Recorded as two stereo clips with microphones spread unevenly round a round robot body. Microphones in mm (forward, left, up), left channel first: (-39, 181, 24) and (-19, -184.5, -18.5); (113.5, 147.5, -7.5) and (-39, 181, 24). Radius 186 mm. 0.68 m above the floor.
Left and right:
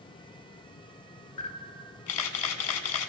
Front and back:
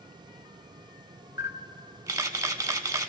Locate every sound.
1.4 s a camera shutter: 110° left, 1.1 m